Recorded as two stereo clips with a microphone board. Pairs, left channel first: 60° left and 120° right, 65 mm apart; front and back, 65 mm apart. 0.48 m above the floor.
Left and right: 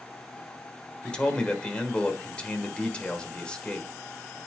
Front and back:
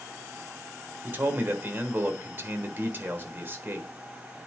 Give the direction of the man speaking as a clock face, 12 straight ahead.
8 o'clock.